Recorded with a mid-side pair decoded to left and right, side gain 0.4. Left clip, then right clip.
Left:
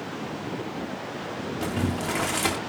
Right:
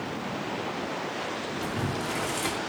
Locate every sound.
1.6 s boiling: 50° left, 2.5 m